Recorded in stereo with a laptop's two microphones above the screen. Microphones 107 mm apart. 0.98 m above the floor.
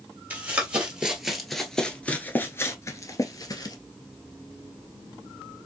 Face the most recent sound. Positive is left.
turn(degrees=35)  # may be behind; listen again after turning